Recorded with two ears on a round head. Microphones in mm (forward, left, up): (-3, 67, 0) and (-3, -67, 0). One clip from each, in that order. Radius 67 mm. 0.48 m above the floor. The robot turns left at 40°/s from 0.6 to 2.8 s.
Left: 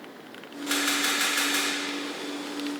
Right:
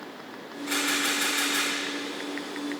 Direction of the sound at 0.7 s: 85° left.